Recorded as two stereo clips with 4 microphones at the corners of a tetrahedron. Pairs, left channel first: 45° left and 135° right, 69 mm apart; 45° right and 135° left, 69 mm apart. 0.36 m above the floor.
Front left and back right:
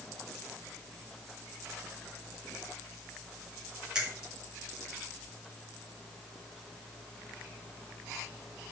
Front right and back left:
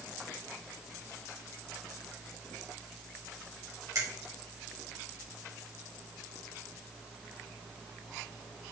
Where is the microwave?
No microwave in this recording.